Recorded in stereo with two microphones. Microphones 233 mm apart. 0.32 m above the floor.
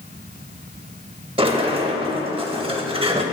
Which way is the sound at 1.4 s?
25° right (ahead or behind).